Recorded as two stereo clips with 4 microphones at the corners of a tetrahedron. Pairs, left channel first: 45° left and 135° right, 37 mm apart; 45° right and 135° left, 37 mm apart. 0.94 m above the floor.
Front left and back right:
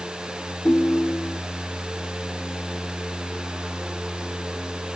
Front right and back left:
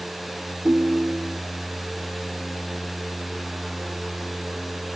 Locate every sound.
0.7 s a ringtone: 90° left